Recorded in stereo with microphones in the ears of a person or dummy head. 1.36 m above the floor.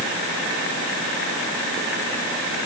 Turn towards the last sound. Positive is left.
No sound to turn to.